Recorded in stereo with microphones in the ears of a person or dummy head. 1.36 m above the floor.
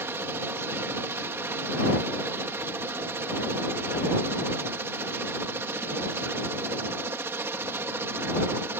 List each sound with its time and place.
0.0 s a helicopter: 15° right (ahead or behind)